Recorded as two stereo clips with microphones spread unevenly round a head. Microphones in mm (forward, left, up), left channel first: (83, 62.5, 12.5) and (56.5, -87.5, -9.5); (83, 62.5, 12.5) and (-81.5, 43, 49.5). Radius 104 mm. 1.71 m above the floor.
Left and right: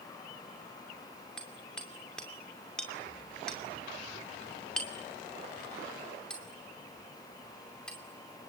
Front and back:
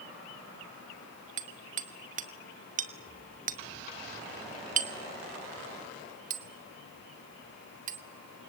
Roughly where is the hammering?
Behind.